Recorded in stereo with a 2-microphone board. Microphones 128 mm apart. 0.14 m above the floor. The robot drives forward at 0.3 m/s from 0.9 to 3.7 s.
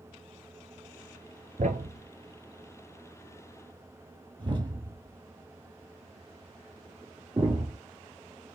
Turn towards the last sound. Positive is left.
turn(degrees=-40)  # may be behind; listen again after turning